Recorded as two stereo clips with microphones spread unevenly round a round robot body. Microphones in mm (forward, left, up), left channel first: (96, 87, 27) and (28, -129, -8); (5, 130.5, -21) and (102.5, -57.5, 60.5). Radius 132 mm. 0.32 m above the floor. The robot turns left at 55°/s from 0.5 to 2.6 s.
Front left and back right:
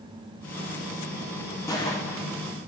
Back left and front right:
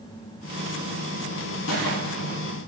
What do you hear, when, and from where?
1.7 s a gunshot: 155° left, 2.5 m; by 2.4 s 115° left, 2.5 m